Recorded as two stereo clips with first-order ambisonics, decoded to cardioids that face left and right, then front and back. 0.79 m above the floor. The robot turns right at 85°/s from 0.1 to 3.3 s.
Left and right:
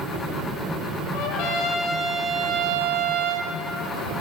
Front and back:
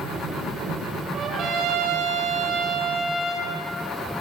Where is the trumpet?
100° left, 4 m; by 3.5 s 75° right, 4 m.